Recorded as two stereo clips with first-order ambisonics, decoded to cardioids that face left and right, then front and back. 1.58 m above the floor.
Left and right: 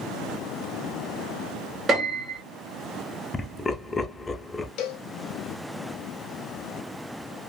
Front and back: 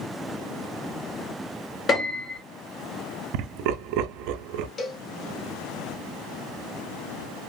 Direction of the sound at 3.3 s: 165° left.